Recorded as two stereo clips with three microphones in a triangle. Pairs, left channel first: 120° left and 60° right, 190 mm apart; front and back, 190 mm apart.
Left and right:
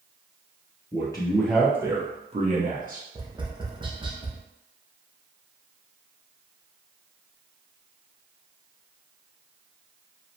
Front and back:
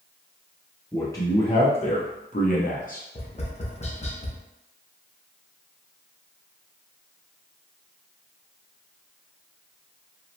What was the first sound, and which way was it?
A man speaking, 75° left.